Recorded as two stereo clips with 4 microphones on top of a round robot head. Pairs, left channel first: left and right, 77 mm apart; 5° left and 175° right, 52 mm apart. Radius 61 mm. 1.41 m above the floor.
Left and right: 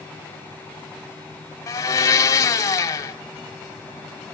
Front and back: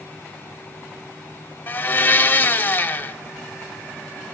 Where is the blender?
55° left, 1.8 m.